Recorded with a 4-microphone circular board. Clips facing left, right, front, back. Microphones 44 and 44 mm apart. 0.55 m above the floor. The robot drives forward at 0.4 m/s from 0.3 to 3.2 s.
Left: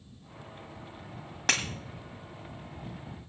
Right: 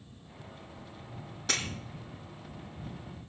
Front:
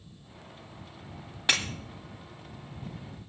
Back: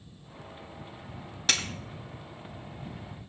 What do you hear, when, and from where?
1.5 s breaking glass: 75° left, 2 m